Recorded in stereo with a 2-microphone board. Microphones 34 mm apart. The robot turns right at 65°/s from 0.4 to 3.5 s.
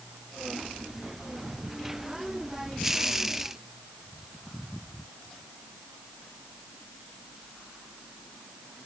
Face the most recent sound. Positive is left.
No sound to turn to.